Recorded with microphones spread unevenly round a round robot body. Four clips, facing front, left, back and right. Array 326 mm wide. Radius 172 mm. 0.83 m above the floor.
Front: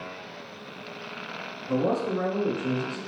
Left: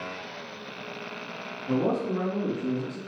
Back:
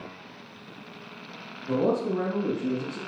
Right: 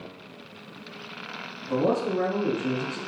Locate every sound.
1.7 s a man speaking: 125° left, 4.5 m; by 3.0 s 130° left, 5.5 m